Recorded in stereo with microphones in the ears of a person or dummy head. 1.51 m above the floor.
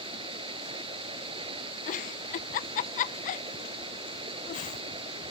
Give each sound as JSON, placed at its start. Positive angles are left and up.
{"t": 0.0, "sound": "running water", "side_deg": -25}
{"t": 1.9, "sound": "a giggle", "side_deg": 35}